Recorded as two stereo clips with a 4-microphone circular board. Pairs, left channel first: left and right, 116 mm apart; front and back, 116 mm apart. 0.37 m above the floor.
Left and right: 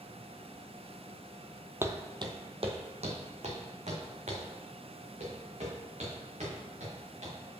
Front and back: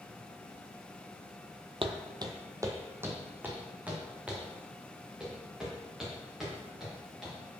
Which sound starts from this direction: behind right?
Footsteps, at 1.8 s.